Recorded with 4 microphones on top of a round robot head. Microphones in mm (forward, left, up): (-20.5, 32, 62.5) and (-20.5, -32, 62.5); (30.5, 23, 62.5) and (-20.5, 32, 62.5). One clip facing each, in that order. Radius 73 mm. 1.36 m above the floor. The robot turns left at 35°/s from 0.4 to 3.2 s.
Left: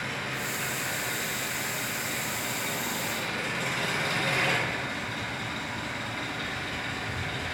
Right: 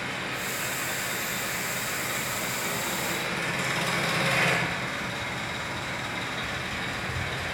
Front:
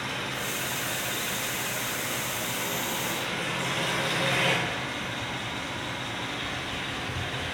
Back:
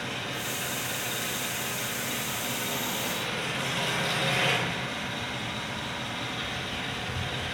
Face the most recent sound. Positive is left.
turn(degrees=-95)